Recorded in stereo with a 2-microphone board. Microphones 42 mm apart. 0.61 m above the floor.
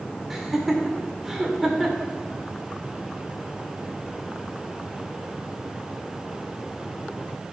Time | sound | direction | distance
0.3 | laughter | 5° right (ahead or behind) | 1.9 m